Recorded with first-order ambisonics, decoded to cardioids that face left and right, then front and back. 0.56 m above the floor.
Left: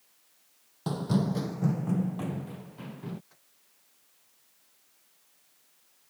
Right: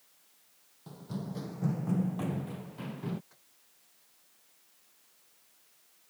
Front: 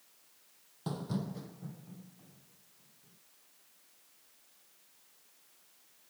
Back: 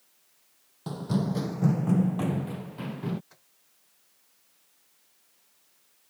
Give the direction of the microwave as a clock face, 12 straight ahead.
6 o'clock.